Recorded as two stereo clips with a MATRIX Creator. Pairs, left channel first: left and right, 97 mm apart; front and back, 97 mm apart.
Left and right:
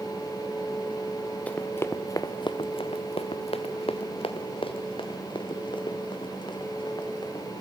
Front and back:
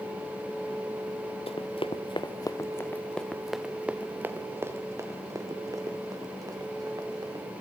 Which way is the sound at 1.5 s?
15° left.